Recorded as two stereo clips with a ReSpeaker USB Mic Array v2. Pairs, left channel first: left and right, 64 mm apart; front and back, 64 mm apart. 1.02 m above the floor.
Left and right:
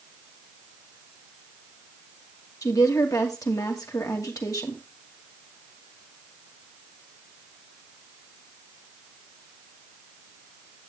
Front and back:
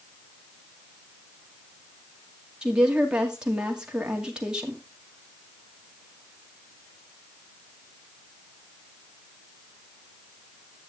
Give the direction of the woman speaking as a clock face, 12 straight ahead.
9 o'clock.